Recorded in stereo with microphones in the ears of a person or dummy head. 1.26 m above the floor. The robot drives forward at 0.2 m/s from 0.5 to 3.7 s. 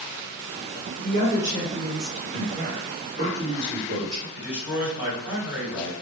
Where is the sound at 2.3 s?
40° right (ahead or behind), 1.2 m; by 4.2 s 35° right (ahead or behind), 1.4 m.